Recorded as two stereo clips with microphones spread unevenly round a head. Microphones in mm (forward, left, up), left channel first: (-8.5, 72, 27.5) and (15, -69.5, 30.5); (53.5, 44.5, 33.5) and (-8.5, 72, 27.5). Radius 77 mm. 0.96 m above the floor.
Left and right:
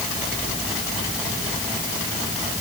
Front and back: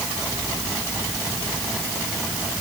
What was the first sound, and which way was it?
Only background noise.